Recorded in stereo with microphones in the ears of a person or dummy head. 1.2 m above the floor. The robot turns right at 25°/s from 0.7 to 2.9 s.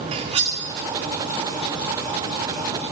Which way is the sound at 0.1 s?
35° right (ahead or behind).